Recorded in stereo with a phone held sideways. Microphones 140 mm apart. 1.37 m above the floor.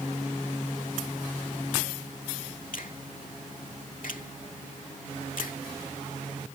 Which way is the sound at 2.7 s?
75° left (ahead or behind).